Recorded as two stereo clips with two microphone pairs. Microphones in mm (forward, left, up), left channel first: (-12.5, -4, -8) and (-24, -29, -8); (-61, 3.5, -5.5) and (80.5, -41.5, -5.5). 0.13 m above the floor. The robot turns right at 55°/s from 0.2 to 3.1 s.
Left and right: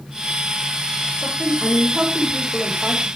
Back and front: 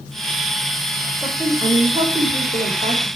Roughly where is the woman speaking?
Right.